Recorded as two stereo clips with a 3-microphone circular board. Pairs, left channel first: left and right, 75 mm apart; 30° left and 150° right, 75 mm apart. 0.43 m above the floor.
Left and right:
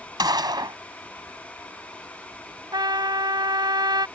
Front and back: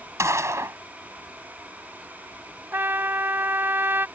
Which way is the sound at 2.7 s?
90° right.